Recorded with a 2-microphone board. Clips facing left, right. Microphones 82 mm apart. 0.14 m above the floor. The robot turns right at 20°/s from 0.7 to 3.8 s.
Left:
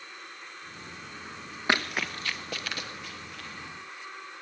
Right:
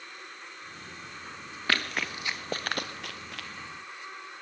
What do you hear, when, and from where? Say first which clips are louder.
1.7 s running footsteps: left 2 dB; 20° left (ahead or behind), 1.2 m; by 3.5 s 85° right, 1.5 m